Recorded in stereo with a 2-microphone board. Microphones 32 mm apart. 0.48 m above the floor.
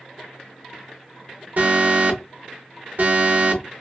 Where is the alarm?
55° right (ahead or behind), 0.7 m.